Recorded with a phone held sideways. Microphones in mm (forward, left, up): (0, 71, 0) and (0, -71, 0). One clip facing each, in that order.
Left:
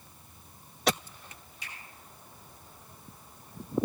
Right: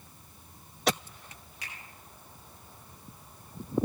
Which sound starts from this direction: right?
A finger snap, at 1.6 s.